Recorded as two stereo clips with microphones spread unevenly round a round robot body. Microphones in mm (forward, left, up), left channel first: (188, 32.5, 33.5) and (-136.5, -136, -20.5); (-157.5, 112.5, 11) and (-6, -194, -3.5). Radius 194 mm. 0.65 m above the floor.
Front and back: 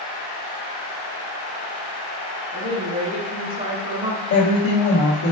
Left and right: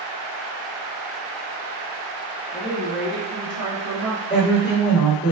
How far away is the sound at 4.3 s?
About 1.4 m.